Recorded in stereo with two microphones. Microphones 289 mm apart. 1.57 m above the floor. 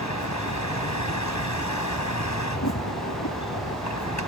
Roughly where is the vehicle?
Left.